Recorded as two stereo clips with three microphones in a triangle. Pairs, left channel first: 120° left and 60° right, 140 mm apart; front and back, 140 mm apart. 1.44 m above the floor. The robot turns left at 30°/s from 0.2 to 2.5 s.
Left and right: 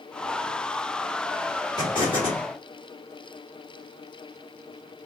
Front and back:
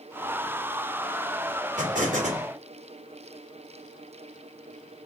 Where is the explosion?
175° left, 2 m; by 2.5 s 155° left, 2 m.